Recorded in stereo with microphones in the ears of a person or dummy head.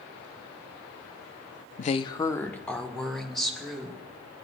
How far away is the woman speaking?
About 0.6 m.